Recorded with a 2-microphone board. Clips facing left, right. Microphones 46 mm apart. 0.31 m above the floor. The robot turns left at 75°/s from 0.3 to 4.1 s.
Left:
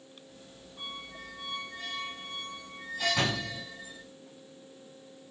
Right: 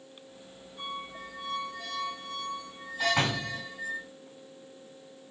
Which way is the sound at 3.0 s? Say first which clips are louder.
Right 2 dB; 45° right.